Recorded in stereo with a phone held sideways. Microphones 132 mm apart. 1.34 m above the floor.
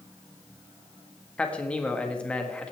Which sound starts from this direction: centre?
A man speaking, at 1.4 s.